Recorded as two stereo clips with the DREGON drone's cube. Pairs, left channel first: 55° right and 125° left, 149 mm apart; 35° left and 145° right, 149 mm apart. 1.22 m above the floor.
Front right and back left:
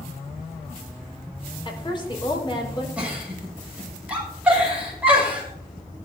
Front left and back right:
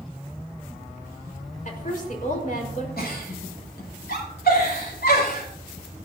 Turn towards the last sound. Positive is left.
turn(degrees=45)